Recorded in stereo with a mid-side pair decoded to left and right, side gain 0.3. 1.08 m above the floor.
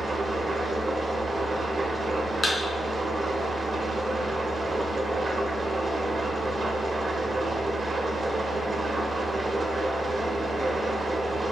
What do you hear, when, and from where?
0.0 s an engine running: 45° right, 1.7 m
2.4 s a thud: 40° left, 3 m